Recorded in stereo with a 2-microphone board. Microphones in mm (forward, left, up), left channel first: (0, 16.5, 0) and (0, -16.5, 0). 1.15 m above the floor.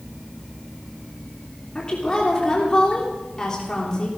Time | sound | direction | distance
1.8 | a woman speaking | 25° left (ahead or behind) | 3 m